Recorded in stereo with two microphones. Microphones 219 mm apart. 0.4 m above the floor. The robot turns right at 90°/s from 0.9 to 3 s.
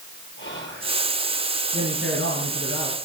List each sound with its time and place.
0.4 s whispering: 60° left (ahead or behind), 9 m; by 0.9 s 55° left (ahead or behind), 9 m
1.7 s a man speaking: 155° right, 5.5 m; by 3.0 s 40° right, 5.5 m